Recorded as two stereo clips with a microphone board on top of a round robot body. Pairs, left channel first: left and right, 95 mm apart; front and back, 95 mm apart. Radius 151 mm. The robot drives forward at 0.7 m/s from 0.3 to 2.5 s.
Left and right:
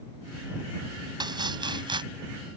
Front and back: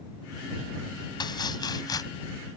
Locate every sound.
1.2 s chopping: 45° right; by 2.0 s 50° right